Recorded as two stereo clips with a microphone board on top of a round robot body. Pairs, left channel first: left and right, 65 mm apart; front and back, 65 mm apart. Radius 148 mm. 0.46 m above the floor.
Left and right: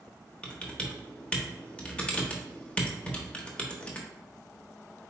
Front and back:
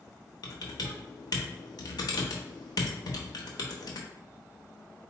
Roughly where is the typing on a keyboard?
Ahead.